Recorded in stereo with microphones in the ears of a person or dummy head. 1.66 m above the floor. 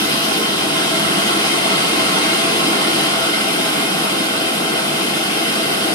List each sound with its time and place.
0.0 s running water: 40° right (ahead or behind), 2 m